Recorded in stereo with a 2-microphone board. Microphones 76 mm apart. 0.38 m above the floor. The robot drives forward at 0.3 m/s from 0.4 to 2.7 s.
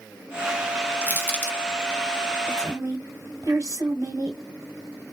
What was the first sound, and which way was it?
Crushing, 25° left (ahead or behind).